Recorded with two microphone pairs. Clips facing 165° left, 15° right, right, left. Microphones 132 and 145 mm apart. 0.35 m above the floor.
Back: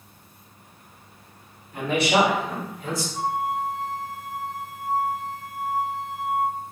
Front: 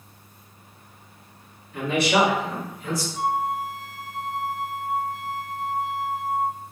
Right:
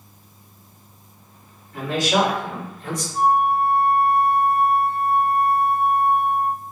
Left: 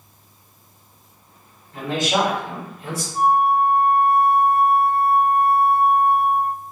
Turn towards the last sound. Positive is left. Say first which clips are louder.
# front 1 dB, left 1 dB
turn(degrees=175)